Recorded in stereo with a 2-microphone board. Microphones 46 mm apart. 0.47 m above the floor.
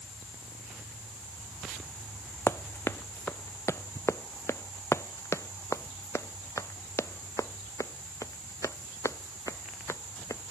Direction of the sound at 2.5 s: 55° left (ahead or behind).